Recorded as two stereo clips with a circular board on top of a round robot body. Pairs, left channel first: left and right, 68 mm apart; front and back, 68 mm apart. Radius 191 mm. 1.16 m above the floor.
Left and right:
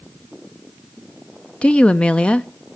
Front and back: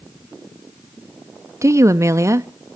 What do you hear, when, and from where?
1.6 s a woman speaking: 160° left, 0.7 m